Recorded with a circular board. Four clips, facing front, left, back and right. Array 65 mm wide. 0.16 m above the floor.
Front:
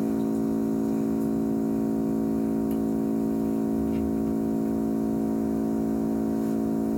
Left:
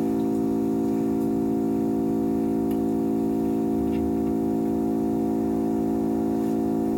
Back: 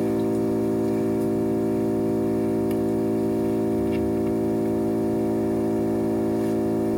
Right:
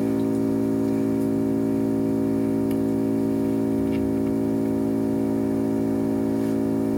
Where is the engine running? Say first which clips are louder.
Right 1 dB, back 3 dB; 155° right, 1.8 m.